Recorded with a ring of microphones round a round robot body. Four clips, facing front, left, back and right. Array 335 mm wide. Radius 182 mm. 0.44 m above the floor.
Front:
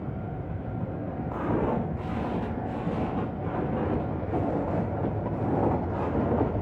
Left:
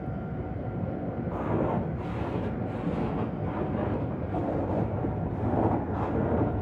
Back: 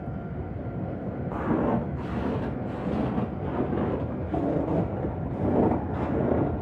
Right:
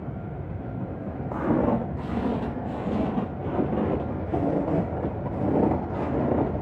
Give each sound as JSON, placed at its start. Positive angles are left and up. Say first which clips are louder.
{"t": 1.3, "sound": "footsteps", "louder": "right 6 dB, back 2 dB", "azimuth_deg": -105, "distance_m": 6.0}